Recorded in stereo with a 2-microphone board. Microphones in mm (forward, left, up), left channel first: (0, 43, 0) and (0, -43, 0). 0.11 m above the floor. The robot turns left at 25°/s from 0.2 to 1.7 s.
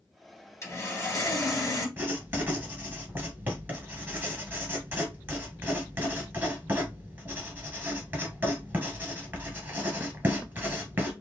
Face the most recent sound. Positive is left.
turn(degrees=-25)  # may be behind; listen again after turning